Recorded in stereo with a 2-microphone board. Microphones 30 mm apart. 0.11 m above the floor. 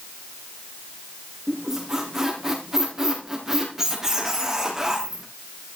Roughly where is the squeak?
Centre.